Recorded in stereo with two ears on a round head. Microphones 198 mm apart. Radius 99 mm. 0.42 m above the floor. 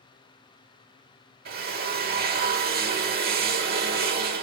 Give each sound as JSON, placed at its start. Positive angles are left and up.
{"t": 1.4, "sound": "a drill", "side_deg": -45, "distance_m": 1.0}